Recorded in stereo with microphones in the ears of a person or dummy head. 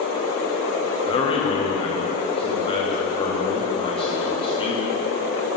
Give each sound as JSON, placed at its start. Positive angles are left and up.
{"t": 1.0, "sound": "a man speaking", "side_deg": 30, "distance_m": 1.5}